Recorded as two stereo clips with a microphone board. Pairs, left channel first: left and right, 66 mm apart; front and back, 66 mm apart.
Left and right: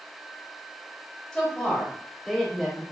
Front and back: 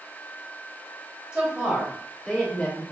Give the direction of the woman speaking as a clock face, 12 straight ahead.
7 o'clock.